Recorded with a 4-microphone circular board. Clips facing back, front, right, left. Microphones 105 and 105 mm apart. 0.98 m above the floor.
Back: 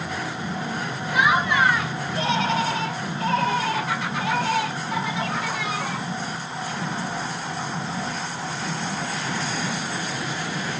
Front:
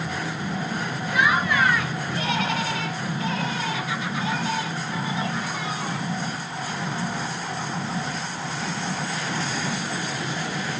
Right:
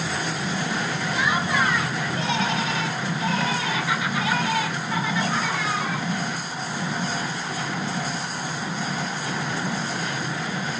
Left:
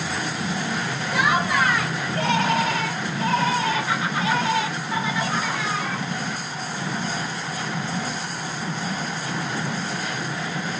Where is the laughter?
110° left, 2.5 m; by 6.1 s straight behind, 2 m.